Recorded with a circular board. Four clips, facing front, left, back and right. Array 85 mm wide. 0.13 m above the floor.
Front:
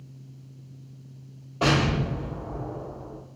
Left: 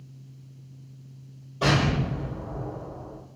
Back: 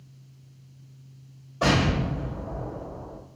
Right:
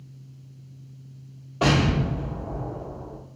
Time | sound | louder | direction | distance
1.6 | an explosion | right 2 dB, even | 65° right | 1.4 m